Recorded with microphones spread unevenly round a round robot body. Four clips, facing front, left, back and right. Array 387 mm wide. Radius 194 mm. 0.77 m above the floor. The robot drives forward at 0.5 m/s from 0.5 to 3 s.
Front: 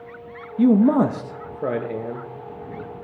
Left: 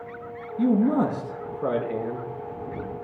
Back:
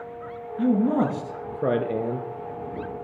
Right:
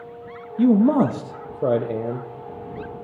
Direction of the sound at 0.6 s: 20° right.